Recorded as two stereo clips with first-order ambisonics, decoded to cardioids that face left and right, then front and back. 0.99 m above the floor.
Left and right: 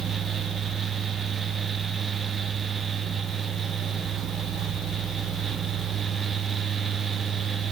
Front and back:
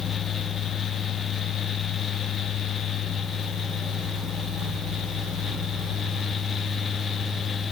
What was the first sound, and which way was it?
Only background noise.